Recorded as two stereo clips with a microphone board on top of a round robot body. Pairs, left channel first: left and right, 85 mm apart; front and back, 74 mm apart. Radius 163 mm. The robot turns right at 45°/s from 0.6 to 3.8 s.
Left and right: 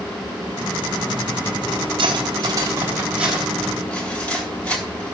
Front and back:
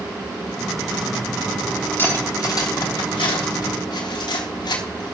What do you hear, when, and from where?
2.0 s cutlery clinking: 65° right, 3.5 m; by 5.2 s 15° left, 3.5 m